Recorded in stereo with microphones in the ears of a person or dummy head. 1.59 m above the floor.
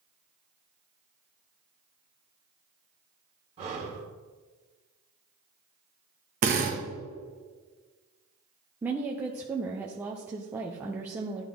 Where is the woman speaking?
10° right (ahead or behind), 0.6 m.